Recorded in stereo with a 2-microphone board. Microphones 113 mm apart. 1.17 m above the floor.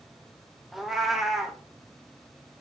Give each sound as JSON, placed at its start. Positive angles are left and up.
{"t": 0.7, "sound": "a cat meowing", "side_deg": 0, "distance_m": 0.6}